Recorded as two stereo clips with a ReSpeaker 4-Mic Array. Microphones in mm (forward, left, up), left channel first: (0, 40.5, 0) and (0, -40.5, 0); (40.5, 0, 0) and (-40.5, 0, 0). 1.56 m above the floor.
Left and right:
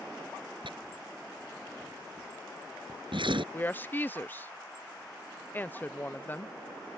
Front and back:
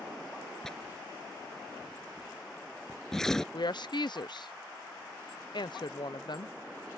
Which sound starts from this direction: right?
Tearing paper, at 0.6 s.